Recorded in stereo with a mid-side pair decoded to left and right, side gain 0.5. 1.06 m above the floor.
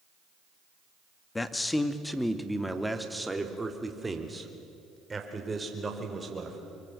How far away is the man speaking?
About 1.8 m.